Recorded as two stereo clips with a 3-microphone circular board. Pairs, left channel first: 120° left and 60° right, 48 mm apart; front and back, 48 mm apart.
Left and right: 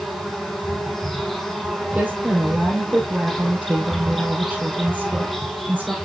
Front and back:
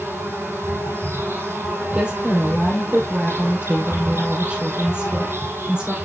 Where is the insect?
155° right, 5.5 m.